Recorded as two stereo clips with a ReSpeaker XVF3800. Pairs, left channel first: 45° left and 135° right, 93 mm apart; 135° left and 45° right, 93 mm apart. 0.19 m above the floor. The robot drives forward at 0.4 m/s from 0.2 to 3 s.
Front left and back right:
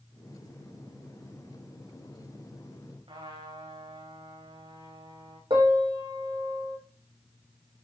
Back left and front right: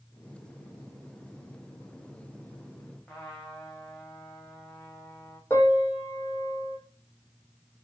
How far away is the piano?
About 4 m.